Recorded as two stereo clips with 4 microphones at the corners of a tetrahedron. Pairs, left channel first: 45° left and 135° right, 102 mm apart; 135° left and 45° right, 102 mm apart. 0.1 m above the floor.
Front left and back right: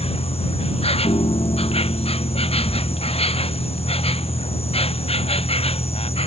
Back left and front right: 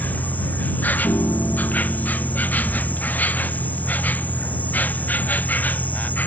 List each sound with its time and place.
0.0 s an insect: 60° left
1.0 s a piano: 75° left